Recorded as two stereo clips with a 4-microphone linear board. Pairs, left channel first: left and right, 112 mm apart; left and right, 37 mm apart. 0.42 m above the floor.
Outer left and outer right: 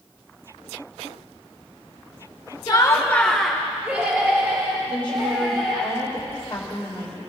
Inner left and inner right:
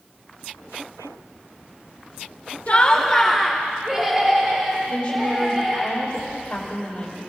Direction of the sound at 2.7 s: 35° left (ahead or behind).